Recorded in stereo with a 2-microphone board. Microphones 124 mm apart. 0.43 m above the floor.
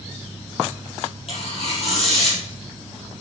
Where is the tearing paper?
55° left (ahead or behind), 4.5 m.